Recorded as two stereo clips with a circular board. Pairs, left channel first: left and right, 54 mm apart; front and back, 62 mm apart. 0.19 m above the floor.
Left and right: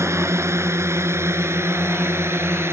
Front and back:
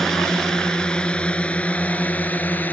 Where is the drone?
80° right; by 2.7 s 60° right.